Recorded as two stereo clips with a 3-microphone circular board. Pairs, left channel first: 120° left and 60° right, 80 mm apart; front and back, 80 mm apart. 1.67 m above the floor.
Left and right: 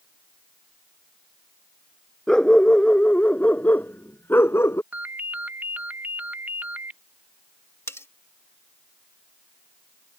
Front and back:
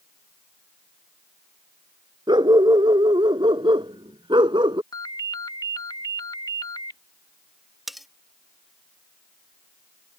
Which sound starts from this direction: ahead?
A ringtone, at 4.9 s.